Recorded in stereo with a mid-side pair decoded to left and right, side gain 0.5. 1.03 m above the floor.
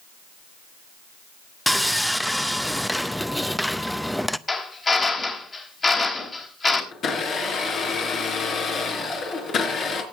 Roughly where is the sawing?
Ahead.